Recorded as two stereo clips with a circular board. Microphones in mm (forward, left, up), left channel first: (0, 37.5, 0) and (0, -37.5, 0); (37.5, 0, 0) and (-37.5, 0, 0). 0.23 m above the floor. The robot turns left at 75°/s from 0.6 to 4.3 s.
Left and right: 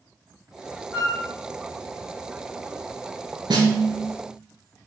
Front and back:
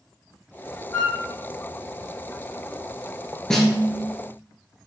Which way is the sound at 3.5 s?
80° right.